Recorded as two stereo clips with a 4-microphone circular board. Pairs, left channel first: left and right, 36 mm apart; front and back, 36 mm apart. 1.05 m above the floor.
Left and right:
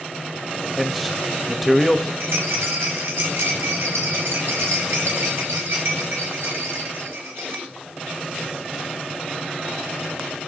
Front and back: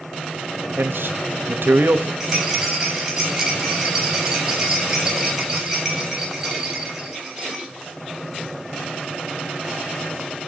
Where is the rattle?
100° right, 3.5 m.